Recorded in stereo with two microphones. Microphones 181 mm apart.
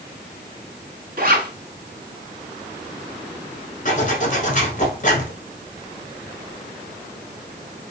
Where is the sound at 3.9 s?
45° left (ahead or behind), 1.0 m.